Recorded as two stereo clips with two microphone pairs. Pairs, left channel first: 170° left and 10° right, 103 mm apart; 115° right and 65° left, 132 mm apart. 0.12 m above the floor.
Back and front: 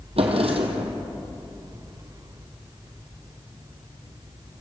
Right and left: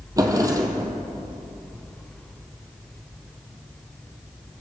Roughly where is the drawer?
Ahead.